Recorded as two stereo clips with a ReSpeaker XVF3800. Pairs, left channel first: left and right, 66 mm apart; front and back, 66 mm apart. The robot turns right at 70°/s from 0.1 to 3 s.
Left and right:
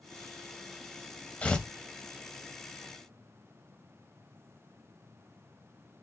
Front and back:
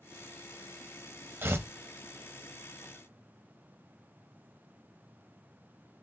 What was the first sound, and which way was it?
Tearing paper, 145° left.